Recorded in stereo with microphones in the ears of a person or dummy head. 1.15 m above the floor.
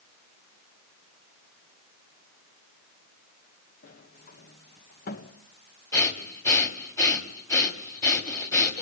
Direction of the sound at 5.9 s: 15° left (ahead or behind).